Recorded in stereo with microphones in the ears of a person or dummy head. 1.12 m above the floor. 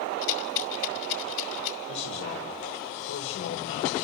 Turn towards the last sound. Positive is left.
turn(degrees=65)  # may be behind; listen again after turning